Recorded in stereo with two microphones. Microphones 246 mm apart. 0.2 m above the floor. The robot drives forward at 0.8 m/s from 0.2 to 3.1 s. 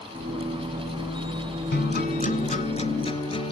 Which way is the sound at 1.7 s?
45° left (ahead or behind).